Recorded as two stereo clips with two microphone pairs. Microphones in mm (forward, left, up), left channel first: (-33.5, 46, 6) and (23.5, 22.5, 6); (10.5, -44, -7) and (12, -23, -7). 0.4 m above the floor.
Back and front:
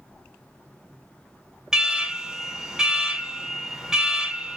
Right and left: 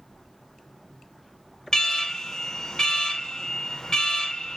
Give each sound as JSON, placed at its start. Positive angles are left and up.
{"t": 1.7, "sound": "an alarm", "azimuth_deg": -95, "distance_m": 0.7}